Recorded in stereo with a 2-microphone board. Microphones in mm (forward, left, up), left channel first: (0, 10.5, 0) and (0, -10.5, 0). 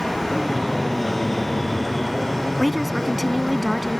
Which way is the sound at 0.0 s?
15° left (ahead or behind).